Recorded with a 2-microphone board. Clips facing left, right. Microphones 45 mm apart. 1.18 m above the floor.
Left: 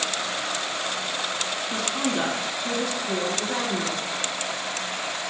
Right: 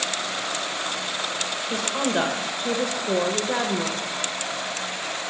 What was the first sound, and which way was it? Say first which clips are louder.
A woman speaking: right 3 dB; 50° right (ahead or behind).